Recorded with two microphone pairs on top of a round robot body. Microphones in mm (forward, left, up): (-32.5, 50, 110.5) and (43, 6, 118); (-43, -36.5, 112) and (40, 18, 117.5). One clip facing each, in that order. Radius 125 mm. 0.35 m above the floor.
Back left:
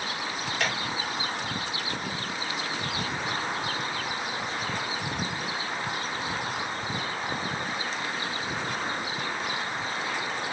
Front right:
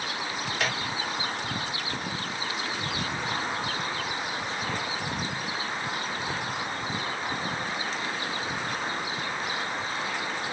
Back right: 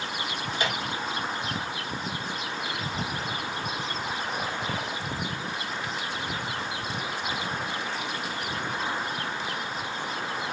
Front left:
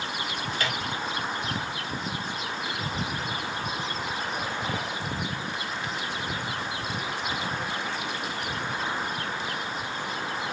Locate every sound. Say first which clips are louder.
0.5 s a microwave: even, back right 2 dB; 130° right, 0.9 m